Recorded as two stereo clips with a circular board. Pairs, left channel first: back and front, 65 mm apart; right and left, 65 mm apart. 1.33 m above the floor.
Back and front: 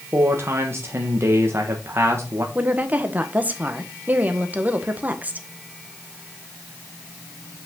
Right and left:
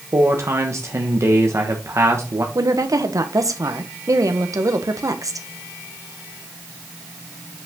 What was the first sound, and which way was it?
A man speaking, 50° left.